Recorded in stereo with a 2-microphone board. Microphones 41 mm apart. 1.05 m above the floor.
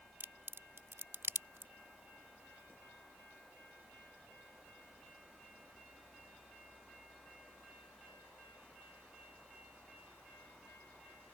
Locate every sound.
0.2 s a crack: 70° right (ahead or behind)